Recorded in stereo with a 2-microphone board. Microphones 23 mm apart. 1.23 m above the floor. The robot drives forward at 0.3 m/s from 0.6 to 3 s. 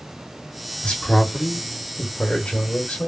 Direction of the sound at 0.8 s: 60° left (ahead or behind).